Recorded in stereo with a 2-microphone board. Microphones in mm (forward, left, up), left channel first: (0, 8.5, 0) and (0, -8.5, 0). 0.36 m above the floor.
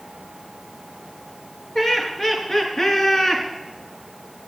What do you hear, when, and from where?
1.8 s laughter: 35° left (ahead or behind), 5.5 m; by 3.5 s 40° left (ahead or behind), 3.5 m